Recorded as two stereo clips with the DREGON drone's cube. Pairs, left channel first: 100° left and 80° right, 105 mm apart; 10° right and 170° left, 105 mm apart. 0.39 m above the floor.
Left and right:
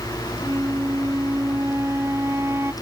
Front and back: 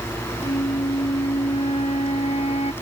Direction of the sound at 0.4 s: 15° right.